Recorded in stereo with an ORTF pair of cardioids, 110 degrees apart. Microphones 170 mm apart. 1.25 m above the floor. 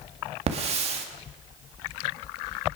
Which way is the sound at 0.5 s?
40° right.